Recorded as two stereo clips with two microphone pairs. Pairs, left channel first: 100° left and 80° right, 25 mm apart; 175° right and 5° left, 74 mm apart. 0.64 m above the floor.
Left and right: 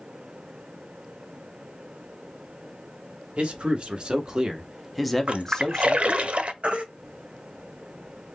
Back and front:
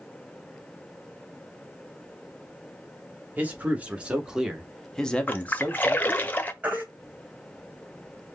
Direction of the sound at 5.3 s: 110° right.